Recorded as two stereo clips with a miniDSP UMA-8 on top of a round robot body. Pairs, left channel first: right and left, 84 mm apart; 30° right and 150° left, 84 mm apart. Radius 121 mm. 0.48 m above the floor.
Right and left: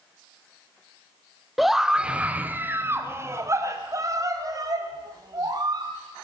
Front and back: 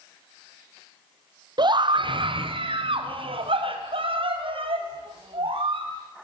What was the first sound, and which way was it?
A scream, straight behind.